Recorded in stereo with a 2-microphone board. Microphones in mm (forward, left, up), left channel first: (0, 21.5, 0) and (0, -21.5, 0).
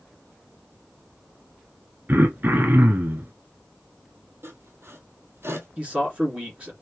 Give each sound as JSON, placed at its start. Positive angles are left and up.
{"t": 2.1, "sound": "throat clearing", "side_deg": -45, "distance_m": 1.0}
{"t": 4.4, "sound": "sawing", "side_deg": -60, "distance_m": 1.1}
{"t": 5.8, "sound": "a man speaking", "side_deg": -25, "distance_m": 2.0}